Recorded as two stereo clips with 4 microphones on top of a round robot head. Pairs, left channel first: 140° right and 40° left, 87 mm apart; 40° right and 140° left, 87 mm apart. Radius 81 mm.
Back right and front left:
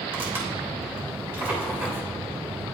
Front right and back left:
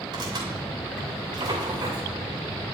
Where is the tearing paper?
105° left, 3 m.